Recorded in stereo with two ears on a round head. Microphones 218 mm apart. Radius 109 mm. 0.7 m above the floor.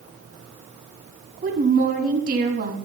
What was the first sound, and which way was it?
A woman speaking, 35° right (ahead or behind).